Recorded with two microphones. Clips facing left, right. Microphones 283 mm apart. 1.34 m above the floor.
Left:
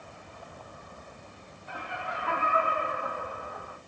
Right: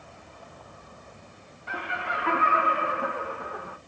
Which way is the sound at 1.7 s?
75° right (ahead or behind).